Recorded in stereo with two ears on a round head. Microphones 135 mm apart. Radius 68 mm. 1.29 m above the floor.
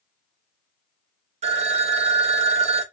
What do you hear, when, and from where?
1.4 s a phone ringing: 45° right (ahead or behind), 0.6 m